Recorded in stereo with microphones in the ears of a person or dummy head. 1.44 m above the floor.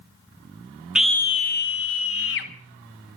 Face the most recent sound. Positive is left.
turn(degrees=65)  # may be behind; listen again after turning